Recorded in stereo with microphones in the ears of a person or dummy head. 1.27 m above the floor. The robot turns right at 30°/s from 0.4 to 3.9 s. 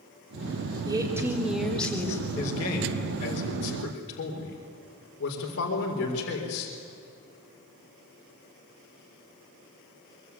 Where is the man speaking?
10° left, 4 m; by 6.7 s 60° left, 4 m.